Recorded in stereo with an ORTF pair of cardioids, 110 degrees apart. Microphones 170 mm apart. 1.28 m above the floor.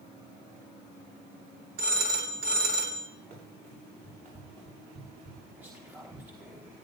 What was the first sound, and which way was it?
A phone ringing, 60° right.